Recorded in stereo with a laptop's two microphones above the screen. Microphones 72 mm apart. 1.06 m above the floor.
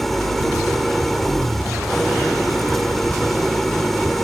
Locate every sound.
0.0 s an engine running: 5° left (ahead or behind)